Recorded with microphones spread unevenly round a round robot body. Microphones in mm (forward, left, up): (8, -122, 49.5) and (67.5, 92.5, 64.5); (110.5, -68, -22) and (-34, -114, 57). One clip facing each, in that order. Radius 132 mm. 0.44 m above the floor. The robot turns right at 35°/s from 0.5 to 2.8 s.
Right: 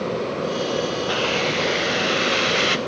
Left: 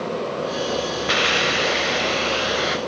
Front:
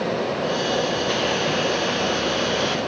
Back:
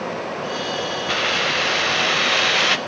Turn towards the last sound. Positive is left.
turn(degrees=-160)